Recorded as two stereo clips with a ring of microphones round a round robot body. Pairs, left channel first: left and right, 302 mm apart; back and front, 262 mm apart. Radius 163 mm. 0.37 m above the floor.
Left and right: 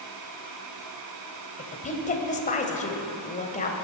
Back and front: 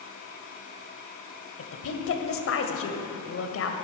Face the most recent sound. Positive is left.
turn(degrees=155)